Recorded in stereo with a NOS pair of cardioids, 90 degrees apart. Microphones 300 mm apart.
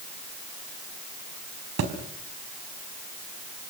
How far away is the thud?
About 4.5 m.